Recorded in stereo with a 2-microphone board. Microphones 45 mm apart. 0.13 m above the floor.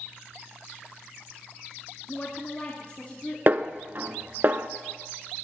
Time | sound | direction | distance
2.1 | a woman speaking | 35° left (ahead or behind) | 2 m
3.5 | a snare drum | 45° right (ahead or behind) | 0.7 m